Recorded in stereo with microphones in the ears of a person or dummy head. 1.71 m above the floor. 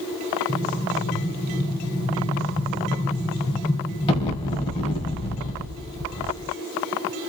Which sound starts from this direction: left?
An explosion, at 0.5 s.